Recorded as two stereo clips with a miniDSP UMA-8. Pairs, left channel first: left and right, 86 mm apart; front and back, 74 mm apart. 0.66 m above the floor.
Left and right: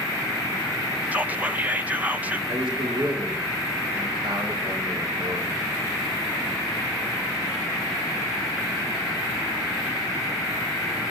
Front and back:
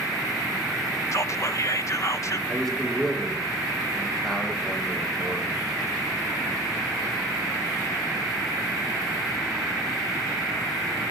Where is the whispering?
25° right, 0.7 m.